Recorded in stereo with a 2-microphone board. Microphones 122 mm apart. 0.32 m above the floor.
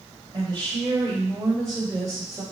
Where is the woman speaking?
40° right (ahead or behind), 1.8 m; by 2.4 s 30° right (ahead or behind), 2 m.